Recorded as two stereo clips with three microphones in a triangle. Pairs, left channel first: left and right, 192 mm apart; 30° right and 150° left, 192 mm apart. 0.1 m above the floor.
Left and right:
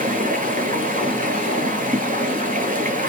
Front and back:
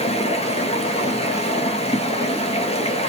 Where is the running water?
70° right, 1.0 m.